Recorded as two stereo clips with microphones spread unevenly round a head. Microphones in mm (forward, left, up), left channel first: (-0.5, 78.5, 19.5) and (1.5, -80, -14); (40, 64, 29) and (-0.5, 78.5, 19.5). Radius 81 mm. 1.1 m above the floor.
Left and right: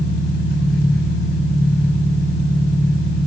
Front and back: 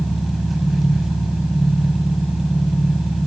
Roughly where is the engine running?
Left.